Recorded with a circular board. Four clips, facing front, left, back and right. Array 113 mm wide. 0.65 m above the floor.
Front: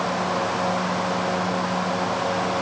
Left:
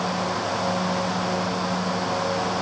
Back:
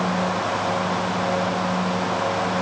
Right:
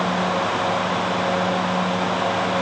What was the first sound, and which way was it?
Only background noise.